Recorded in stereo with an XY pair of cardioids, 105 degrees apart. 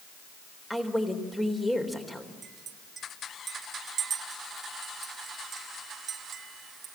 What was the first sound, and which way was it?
A woman speaking, 10° left.